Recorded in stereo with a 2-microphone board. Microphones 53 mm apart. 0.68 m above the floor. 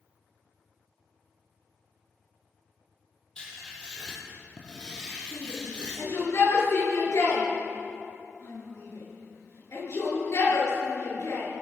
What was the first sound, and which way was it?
Writing, 20° left (ahead or behind).